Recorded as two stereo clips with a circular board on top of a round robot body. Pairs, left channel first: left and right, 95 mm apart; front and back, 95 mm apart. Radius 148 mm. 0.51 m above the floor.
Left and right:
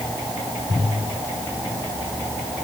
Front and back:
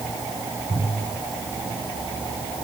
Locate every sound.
Only background noise.